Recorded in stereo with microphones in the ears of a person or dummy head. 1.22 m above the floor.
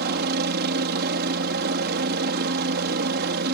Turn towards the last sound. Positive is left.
turn(degrees=-50)  # may be behind; listen again after turning